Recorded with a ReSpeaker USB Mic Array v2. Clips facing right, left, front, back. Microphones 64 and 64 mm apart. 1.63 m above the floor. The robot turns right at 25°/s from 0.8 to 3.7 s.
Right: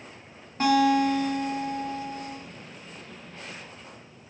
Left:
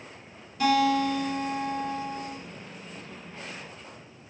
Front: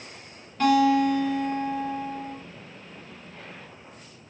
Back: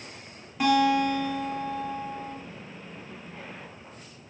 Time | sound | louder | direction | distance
0.6 | a guitar | right 2 dB, front 2 dB | 105° right | 1.4 m